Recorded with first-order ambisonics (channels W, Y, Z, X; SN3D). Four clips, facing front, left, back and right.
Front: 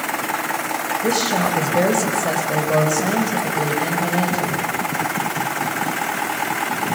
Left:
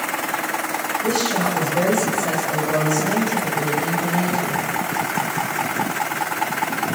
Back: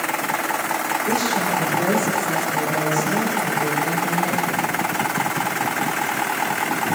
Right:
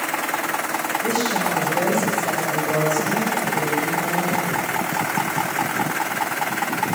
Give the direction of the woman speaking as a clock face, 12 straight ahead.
12 o'clock.